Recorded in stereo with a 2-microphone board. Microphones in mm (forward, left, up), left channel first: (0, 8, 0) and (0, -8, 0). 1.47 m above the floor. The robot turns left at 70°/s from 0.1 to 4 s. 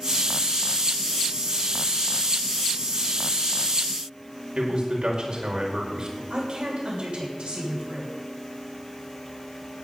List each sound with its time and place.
4.5 s a man speaking: 60° right (ahead or behind), 5 m
6.3 s a woman speaking: 65° right (ahead or behind), 7 m